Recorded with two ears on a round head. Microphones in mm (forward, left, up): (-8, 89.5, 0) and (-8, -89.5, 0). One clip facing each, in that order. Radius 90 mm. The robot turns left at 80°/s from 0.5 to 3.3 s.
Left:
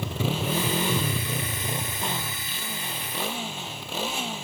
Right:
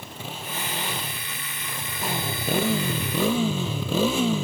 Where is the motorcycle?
120° left; by 4.4 s 105° right.